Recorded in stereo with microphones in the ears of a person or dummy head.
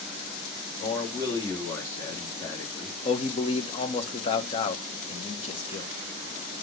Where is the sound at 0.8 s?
25° left (ahead or behind), 3 m.